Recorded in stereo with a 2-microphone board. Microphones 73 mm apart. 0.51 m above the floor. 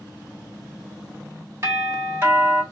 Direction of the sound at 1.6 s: 30° right (ahead or behind).